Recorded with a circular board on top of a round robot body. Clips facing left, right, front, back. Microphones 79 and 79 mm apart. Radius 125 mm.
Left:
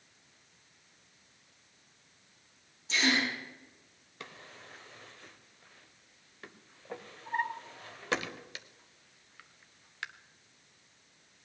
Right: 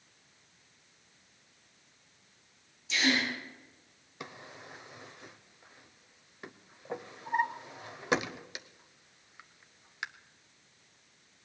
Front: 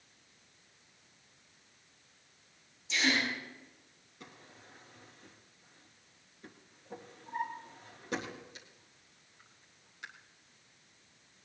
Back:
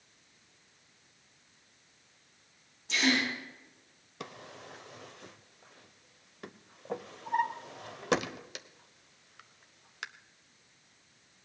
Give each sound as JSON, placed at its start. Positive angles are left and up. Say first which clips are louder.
{"t": 2.9, "sound": "a gasp", "louder": "even, back 2 dB", "azimuth_deg": 145, "distance_m": 6.5}
{"t": 4.2, "sound": "a drawer", "louder": "right 3 dB, back 9 dB", "azimuth_deg": -165, "distance_m": 1.0}